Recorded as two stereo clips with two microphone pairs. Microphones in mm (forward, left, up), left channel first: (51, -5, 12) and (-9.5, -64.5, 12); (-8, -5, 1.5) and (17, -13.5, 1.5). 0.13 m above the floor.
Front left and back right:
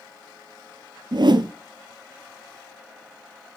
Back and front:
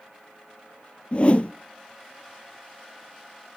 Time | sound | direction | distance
1.1 | a whoosh | 155° right | 0.8 m